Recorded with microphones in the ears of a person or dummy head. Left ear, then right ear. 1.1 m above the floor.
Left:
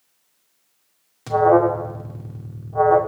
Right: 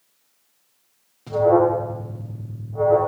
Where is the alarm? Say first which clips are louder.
Left 1 dB; 65° left (ahead or behind), 1.8 m.